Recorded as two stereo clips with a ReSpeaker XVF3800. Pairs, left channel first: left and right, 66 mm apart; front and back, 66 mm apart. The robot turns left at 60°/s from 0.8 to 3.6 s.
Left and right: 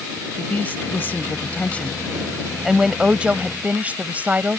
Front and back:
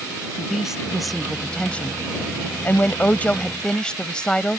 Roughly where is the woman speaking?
Left.